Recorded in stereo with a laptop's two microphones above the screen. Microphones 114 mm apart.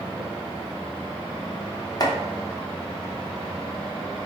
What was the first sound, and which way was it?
Chopping, 35° left (ahead or behind).